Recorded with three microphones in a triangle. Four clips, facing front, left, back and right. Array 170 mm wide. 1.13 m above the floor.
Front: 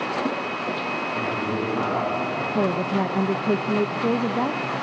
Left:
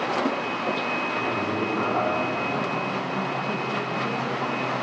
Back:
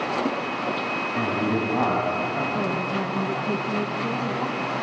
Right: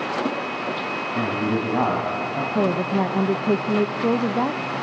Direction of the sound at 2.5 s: 55° right.